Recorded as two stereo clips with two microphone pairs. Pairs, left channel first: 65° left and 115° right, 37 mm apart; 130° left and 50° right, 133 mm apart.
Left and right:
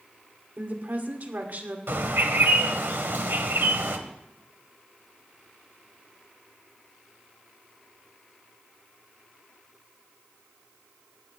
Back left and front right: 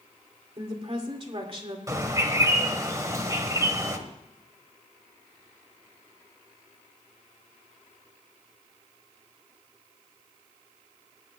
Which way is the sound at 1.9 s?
115° right.